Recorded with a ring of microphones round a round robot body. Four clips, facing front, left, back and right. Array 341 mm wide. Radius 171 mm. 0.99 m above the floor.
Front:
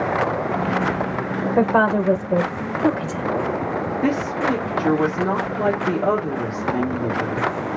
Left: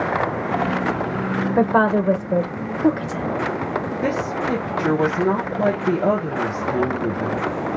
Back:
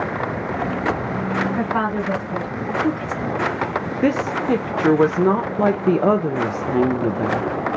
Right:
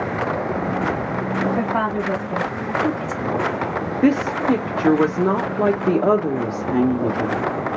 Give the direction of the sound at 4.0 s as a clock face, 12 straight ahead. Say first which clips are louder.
Right 8 dB, back 3 dB; 5 o'clock.